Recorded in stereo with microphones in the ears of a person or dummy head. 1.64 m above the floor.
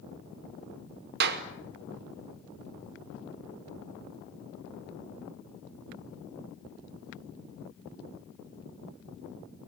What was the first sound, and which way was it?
A clap, 55° right (ahead or behind).